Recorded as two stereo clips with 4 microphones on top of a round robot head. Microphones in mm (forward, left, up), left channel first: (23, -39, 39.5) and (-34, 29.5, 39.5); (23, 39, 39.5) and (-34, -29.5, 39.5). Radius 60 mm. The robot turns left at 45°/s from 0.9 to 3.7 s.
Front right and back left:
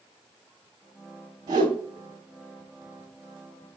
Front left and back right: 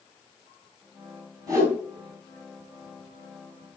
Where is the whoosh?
Straight behind, 2.5 m; by 1.8 s 165° left, 2.5 m.